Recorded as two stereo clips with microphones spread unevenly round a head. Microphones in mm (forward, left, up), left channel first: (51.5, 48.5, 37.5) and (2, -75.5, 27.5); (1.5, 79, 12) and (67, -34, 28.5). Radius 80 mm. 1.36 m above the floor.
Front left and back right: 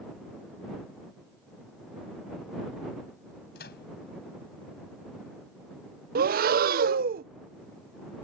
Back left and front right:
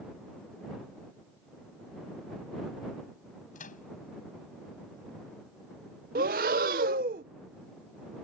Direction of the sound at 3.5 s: 95° left.